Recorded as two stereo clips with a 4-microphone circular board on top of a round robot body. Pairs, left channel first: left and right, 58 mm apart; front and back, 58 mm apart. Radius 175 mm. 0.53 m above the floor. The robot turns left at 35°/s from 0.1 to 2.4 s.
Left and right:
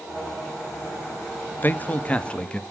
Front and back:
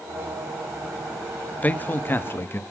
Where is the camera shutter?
I don't hear a camera shutter.